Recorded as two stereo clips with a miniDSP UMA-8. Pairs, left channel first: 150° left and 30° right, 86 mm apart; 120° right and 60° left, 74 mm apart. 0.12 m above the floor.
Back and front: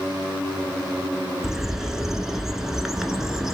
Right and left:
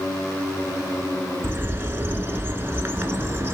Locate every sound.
1.4 s a bird: 50° left, 0.7 m